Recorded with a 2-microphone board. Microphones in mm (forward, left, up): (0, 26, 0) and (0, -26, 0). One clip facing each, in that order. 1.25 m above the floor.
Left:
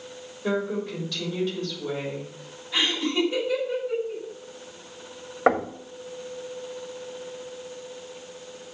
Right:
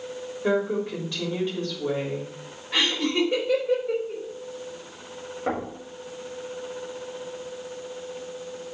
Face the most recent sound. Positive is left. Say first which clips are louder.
# left 7 dB
turn(degrees=75)  # may be behind; listen again after turning